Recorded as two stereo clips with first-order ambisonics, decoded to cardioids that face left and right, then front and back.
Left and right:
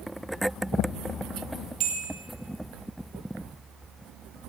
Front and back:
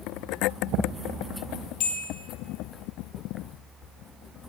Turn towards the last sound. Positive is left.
turn(degrees=-45)